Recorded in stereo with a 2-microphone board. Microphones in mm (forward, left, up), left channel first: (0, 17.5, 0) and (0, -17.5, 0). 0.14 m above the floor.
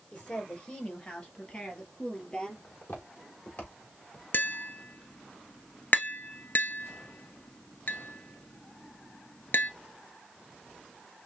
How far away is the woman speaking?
About 3 m.